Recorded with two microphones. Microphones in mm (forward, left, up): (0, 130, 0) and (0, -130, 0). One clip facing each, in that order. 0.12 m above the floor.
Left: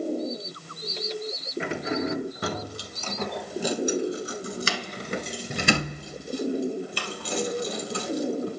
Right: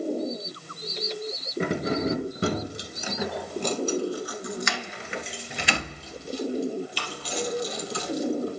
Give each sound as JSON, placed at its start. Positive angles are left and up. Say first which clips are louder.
{"t": 1.6, "sound": "keys jangling", "louder": "right 3 dB", "side_deg": -40, "distance_m": 1.6}